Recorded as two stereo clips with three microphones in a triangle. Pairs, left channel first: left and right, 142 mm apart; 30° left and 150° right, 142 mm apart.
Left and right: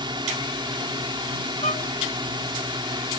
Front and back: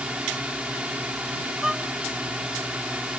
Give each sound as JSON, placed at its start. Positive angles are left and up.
{"t": 0.0, "sound": "a drone", "azimuth_deg": -75}
{"t": 1.6, "sound": "a violin", "azimuth_deg": 125}